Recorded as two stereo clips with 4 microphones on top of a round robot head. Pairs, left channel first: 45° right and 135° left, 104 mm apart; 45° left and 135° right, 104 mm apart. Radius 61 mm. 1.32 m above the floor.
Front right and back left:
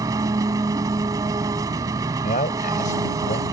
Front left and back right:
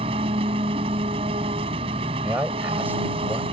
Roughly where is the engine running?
Behind.